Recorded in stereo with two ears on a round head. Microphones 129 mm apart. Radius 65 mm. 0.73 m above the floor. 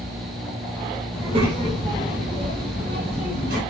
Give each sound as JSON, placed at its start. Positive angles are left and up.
{"t": 1.1, "sound": "a child speaking", "side_deg": -40, "distance_m": 2.0}